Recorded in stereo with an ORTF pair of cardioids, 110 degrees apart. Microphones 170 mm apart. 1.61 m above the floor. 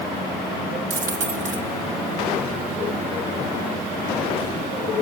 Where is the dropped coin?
50° right, 3.5 m.